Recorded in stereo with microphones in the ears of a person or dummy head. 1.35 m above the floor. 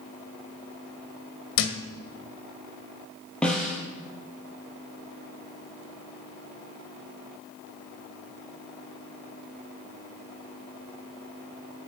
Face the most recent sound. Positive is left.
turn(degrees=0)  # may be behind; listen again after turning